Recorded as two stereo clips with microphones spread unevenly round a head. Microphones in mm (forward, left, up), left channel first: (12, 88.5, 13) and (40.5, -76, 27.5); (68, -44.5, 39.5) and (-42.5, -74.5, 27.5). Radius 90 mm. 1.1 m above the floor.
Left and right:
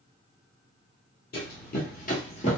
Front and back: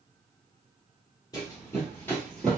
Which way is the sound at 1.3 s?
75° left.